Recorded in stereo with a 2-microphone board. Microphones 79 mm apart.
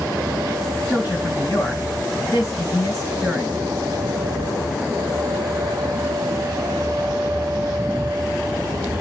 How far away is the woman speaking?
About 2.5 m.